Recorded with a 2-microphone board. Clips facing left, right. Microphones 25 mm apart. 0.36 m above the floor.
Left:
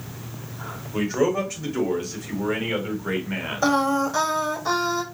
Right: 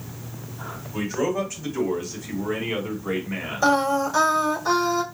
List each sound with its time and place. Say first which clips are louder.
0.9 s a man speaking: left 3 dB; 35° left (ahead or behind), 1.6 m; by 3.7 s 55° left (ahead or behind), 2.5 m
3.6 s singing: right 1 dB; 5° left (ahead or behind), 0.8 m